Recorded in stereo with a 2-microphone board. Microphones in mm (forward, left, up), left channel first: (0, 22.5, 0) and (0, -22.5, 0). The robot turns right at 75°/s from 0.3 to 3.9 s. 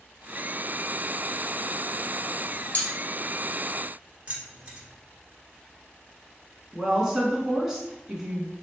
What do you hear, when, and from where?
2.7 s cutlery clinking: 30° left (ahead or behind), 1.6 m; by 2.9 s 20° left (ahead or behind), 1.6 m
4.3 s keys jangling: 30° right (ahead or behind), 1.4 m
6.7 s a woman speaking: 15° right (ahead or behind), 1.3 m